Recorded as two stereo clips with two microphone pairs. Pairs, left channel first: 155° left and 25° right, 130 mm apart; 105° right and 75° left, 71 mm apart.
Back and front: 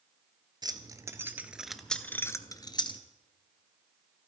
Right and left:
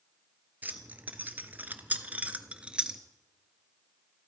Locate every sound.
0.6 s keys jangling: 20° left, 1.2 m; by 3.0 s 145° left, 1.1 m